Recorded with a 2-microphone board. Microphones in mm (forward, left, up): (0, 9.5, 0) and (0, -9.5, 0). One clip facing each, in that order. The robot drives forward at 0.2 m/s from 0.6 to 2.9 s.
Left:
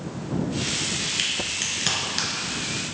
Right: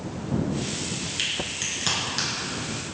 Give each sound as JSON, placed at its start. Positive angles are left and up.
{"t": 1.2, "sound": "a crack", "side_deg": 10, "distance_m": 1.1}